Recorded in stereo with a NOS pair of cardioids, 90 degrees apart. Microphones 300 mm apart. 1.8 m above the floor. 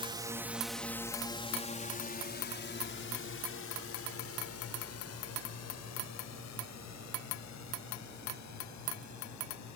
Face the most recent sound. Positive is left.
turn(degrees=70)